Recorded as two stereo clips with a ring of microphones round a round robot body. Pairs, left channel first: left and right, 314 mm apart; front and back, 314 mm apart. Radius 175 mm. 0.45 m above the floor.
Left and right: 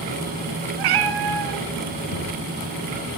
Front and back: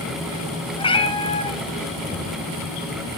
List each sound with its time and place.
0.8 s a cat meowing: 75° right, 2.5 m
2.1 s knocking: 70° left, 5.5 m